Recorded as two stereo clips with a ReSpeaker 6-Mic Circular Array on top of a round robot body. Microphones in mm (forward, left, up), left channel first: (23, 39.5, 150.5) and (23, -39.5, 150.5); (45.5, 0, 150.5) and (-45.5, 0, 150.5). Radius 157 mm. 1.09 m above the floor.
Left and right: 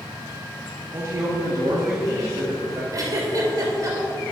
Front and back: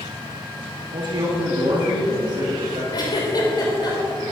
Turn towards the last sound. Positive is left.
turn(degrees=-45)